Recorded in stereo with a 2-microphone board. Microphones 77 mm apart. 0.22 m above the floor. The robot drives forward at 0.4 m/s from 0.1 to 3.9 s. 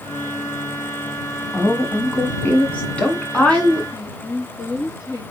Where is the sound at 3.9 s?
45° left (ahead or behind), 3 m.